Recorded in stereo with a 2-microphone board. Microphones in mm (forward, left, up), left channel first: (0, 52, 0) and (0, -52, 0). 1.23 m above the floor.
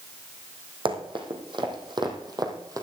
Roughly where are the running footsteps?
Right.